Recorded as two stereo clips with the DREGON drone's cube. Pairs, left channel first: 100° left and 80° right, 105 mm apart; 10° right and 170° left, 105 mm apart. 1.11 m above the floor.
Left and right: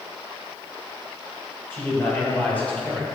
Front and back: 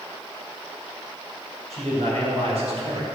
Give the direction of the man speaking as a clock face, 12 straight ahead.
6 o'clock.